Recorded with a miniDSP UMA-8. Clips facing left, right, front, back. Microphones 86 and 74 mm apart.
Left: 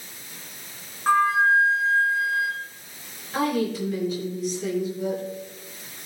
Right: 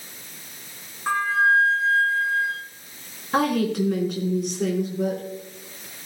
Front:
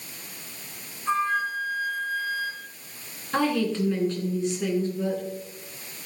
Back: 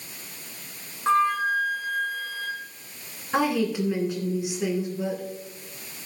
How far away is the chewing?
I don't hear chewing.